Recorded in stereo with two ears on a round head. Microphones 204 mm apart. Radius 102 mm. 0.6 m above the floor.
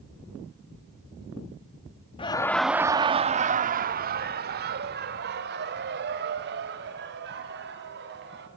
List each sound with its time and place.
2.2 s laughter: 20° left (ahead or behind), 0.6 m; by 8.5 s 50° right (ahead or behind), 4 m